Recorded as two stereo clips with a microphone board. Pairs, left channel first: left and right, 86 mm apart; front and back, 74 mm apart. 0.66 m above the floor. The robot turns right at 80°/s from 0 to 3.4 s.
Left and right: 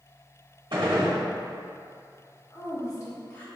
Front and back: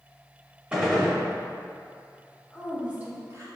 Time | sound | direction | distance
0.7 | a gunshot | 105° right | 0.9 m
2.5 | a woman speaking | 80° left | 0.9 m